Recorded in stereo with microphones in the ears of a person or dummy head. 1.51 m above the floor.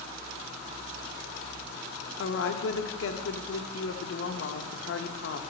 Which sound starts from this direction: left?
A woman speaking, at 2.2 s.